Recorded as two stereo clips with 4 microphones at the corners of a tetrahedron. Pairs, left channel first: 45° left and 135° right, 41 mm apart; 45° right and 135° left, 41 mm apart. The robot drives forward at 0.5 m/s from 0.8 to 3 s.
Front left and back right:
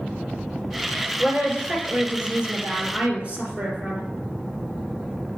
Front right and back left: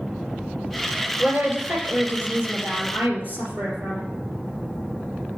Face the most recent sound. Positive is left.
turn(degrees=165)